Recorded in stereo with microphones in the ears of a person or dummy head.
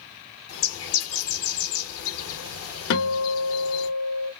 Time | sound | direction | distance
0.5 | a bird | 80° left | 2 m
2.9 | a guitar | 70° left (ahead or behind) | 2 m